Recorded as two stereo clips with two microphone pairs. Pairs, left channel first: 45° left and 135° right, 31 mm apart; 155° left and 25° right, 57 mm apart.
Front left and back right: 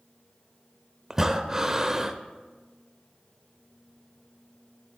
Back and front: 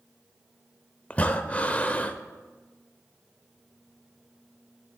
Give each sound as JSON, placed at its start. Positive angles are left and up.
{"t": 1.1, "sound": "breathing", "azimuth_deg": 170, "distance_m": 0.6}